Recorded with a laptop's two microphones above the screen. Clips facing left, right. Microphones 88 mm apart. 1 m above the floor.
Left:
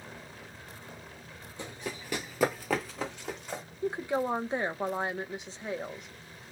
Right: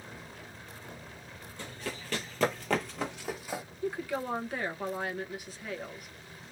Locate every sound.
1.6 s running footsteps: 20° left (ahead or behind), 1.2 m; by 3.6 s 5° right (ahead or behind), 1.6 m
3.8 s a woman speaking: 25° left (ahead or behind), 1.0 m